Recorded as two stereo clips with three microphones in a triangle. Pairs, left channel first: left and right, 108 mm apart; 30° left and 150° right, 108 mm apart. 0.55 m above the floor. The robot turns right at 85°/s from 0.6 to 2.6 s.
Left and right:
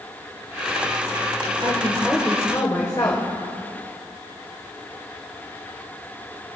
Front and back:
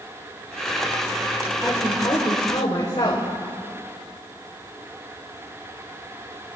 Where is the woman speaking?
45° right, 1.6 m; by 3.3 s 40° left, 1.6 m.